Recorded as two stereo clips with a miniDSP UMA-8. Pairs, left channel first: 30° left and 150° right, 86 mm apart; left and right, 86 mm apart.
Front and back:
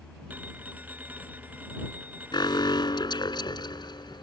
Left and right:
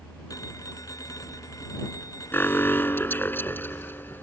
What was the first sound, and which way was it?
A phone ringing, 140° left.